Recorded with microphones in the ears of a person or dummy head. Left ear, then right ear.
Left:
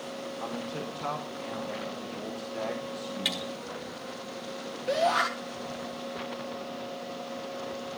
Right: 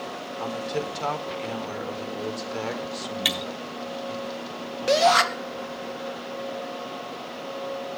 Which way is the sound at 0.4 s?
55° right (ahead or behind).